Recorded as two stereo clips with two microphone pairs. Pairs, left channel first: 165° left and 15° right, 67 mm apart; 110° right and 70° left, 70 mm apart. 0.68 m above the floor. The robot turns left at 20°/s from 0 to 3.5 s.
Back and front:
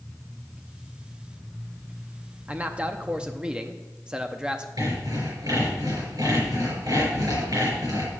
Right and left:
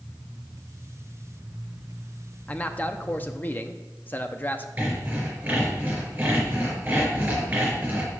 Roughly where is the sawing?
Ahead.